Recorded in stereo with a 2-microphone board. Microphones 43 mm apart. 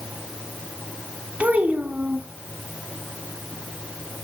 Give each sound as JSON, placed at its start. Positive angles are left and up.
{"t": 1.4, "sound": "a child speaking", "side_deg": -35, "distance_m": 1.6}